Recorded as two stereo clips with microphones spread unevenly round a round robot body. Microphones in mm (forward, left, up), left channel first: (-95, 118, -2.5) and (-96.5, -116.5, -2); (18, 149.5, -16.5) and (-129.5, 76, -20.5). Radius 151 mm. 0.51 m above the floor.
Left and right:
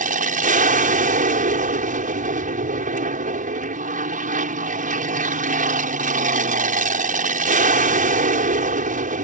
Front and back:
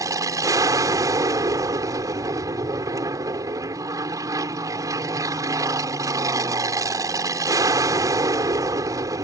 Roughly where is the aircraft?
Right.